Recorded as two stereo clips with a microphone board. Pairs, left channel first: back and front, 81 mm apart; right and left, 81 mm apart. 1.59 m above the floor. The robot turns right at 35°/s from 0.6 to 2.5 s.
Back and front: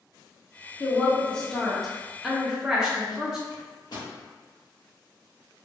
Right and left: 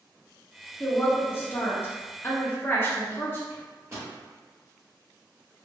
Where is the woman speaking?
130° right, 0.5 m; by 3.4 s 70° right, 0.5 m.